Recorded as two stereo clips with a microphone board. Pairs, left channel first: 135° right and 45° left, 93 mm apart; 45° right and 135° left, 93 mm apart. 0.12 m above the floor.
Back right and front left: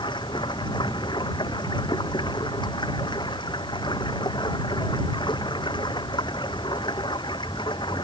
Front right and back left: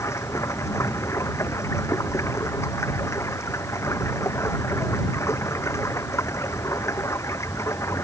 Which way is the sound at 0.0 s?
105° right.